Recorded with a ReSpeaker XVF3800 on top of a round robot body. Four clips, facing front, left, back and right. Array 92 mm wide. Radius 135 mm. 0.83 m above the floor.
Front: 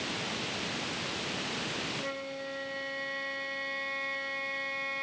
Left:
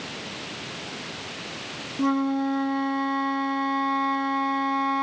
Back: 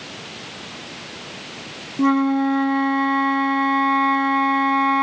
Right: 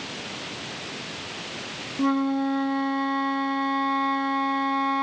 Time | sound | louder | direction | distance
2.0 | a flute | even, back 20 dB | 175° left | ?